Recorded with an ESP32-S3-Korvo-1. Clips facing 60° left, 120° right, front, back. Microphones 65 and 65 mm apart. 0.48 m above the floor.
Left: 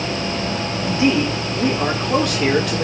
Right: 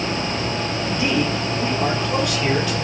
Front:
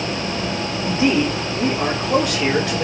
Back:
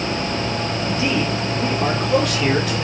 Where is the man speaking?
10° right, 1.2 m; by 2.9 s 60° left, 1.4 m.